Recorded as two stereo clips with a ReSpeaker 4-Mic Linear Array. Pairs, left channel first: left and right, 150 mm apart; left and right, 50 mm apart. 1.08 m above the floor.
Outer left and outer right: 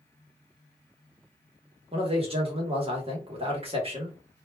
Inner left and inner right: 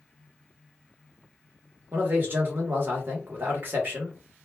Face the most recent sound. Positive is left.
turn(degrees=-40)  # may be behind; listen again after turning